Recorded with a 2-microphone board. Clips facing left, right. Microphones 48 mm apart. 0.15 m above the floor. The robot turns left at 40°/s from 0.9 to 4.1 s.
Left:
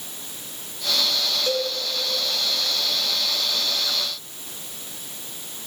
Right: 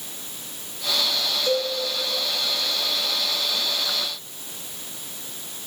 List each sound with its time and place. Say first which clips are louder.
1.5 s a cowbell: right 2 dB; 30° left (ahead or behind), 1.3 m; by 1.7 s 25° left (ahead or behind), 1.3 m